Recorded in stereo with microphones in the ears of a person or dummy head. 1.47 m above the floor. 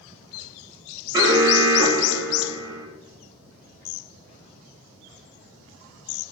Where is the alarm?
15° right (ahead or behind), 7 m.